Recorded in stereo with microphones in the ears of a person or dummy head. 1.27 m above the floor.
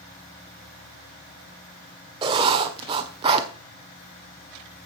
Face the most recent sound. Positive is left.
turn(degrees=-25)  # may be behind; listen again after turning